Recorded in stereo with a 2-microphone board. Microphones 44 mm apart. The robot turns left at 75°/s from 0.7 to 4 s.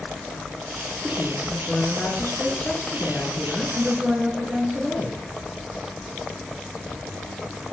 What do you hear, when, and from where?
1.0 s a woman speaking: 165° right, 2.5 m; by 5.2 s 30° right, 2.5 m